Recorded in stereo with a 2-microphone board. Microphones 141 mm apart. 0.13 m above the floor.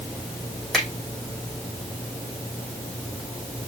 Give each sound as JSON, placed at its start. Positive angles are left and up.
{"t": 0.7, "sound": "a finger snap", "side_deg": 0, "distance_m": 5.0}